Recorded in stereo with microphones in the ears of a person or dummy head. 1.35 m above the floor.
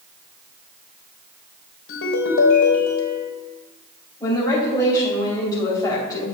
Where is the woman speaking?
15° left (ahead or behind), 3 m.